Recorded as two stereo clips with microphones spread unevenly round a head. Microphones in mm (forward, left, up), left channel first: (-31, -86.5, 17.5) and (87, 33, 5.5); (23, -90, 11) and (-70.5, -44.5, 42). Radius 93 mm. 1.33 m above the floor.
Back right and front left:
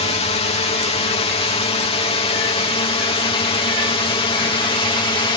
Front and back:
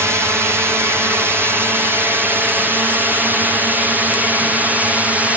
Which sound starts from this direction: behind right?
A drone, at 0.0 s.